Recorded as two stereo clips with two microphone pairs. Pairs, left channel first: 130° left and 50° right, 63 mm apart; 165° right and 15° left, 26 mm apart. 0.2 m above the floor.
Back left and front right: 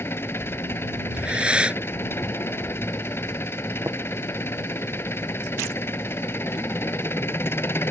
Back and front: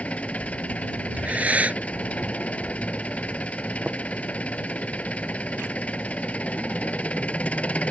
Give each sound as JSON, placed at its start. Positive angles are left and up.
{"t": 0.0, "sound": "an engine running", "azimuth_deg": 180}
{"t": 1.1, "sound": "breathing", "azimuth_deg": 20}
{"t": 3.9, "sound": "tapping", "azimuth_deg": -25}